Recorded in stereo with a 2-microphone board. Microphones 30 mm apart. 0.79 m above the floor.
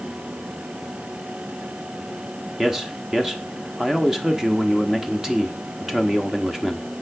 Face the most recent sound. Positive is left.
turn(degrees=-15)  # may be behind; listen again after turning